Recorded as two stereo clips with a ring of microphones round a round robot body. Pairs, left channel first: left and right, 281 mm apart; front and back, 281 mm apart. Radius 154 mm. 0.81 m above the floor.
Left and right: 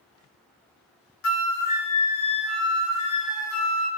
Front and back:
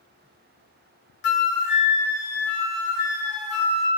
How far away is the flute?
About 0.6 m.